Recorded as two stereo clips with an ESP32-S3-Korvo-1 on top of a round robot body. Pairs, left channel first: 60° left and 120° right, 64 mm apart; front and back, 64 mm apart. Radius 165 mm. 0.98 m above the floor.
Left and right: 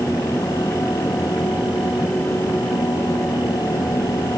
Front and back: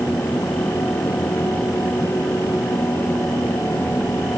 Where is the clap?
No clap in this recording.